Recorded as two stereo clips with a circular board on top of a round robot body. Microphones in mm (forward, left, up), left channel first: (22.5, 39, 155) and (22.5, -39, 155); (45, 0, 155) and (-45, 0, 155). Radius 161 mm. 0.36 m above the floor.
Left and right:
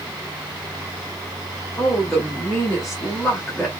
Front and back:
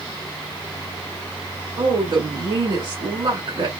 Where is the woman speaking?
Straight behind, 2.5 m.